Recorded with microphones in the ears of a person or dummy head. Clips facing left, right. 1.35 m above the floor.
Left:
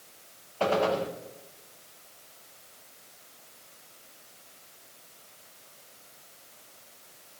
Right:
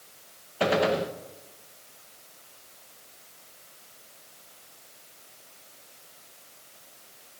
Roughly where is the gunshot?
Centre.